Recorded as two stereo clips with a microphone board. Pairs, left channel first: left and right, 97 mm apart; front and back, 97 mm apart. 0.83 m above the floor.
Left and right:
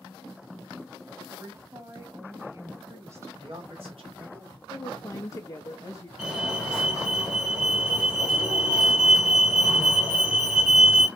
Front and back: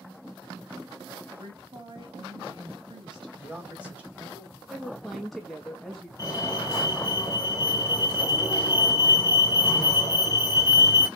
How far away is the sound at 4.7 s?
About 1.0 m.